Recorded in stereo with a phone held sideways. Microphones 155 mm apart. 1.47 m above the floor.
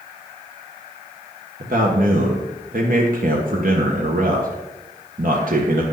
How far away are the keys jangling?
No keys jangling in this recording.